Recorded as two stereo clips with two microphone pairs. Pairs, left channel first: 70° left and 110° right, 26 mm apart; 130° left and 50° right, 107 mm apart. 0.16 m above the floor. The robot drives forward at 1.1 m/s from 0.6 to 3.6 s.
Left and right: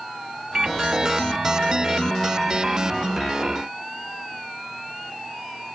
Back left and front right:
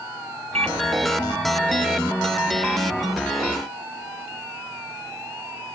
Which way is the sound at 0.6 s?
50° right.